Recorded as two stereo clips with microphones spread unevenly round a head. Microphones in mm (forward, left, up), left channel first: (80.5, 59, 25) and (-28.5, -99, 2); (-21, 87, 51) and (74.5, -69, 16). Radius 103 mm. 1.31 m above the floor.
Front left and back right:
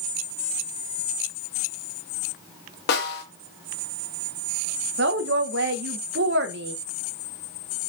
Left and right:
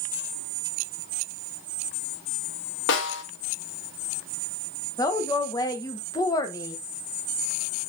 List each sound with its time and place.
2.9 s a snare drum: 100° left, 1.6 m
5.0 s a woman speaking: 165° right, 1.2 m